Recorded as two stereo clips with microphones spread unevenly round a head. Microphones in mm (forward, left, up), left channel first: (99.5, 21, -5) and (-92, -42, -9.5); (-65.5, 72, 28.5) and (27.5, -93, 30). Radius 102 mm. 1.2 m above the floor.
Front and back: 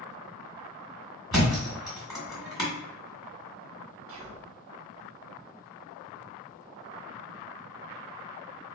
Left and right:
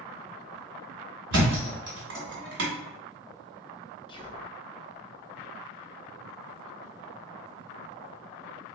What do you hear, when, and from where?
1.3 s a thud: 70° right, 1.8 m
4.1 s whispering: 175° right, 0.8 m